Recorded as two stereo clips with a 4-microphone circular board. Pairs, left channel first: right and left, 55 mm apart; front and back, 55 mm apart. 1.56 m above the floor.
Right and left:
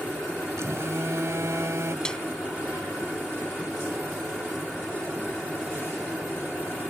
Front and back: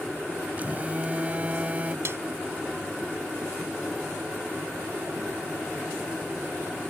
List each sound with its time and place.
0.6 s a phone buzzing: 120° left
2.0 s a snare drum: 165° right